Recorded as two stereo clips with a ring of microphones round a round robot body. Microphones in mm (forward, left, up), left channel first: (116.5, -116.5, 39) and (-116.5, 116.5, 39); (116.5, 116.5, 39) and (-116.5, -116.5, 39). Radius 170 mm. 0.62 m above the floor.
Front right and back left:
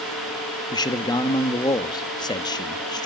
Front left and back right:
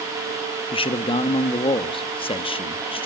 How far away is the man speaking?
About 0.9 m.